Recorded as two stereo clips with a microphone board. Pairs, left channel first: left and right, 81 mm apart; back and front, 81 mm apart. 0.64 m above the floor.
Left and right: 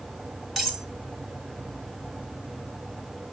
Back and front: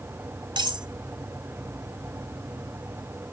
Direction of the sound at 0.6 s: Straight ahead.